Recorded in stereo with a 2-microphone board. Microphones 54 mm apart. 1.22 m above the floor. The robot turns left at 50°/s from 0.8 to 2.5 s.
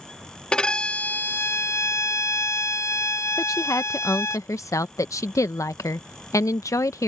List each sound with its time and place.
0.5 s a violin: 160° left; by 4.4 s 75° left
3.4 s a woman speaking: 85° left